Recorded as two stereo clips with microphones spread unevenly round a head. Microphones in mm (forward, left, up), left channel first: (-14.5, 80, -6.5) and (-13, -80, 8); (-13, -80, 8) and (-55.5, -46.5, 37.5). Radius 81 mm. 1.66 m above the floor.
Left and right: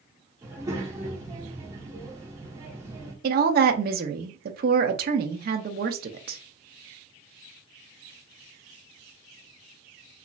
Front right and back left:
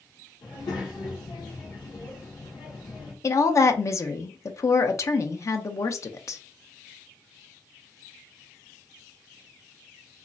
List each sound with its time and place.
0.4 s a child speaking: 20° right, 1.2 m
3.2 s a woman speaking: 85° right, 0.5 m